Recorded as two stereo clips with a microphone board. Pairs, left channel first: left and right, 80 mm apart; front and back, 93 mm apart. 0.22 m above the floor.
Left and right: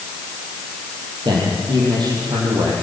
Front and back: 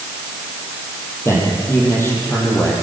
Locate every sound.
1.2 s a man speaking: 60° right, 7.5 m; by 2.7 s 65° right, 8 m